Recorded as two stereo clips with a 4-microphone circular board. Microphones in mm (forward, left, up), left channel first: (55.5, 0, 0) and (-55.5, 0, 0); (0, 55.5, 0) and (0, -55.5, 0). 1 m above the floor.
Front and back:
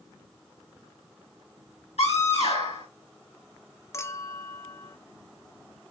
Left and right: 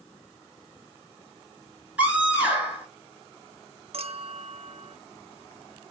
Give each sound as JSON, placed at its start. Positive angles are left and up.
{"t": 2.0, "sound": "a scream", "azimuth_deg": -10, "distance_m": 3.5}
{"t": 3.9, "sound": "a clink", "azimuth_deg": -65, "distance_m": 0.5}